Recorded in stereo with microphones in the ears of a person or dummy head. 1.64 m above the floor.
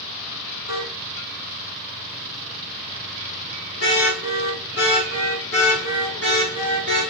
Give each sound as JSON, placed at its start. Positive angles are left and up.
{"t": 0.7, "sound": "a car horn", "side_deg": 70, "distance_m": 10.0}